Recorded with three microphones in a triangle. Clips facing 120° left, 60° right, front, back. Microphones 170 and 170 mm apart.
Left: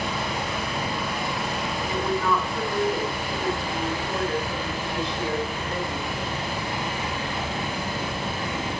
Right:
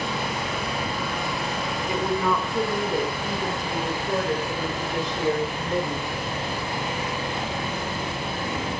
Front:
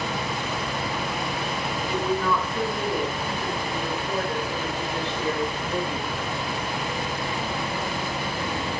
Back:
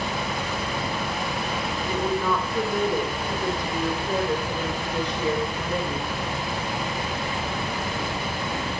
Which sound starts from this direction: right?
A woman speaking, at 1.9 s.